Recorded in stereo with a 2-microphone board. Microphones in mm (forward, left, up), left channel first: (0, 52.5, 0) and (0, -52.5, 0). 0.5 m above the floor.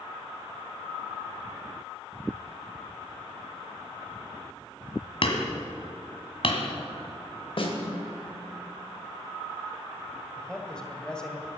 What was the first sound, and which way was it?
Hammering, 60° left (ahead or behind).